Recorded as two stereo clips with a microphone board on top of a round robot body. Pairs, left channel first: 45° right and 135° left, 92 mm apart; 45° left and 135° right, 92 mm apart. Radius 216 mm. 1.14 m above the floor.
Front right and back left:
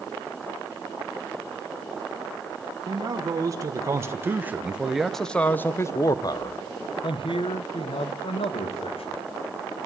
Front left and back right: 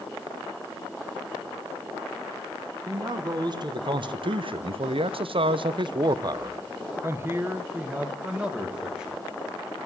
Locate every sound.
2.9 s a man speaking: straight behind, 1.7 m; by 9.2 s 50° right, 2 m